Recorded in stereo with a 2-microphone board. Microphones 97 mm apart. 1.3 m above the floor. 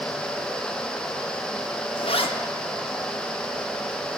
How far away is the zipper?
About 1.1 m.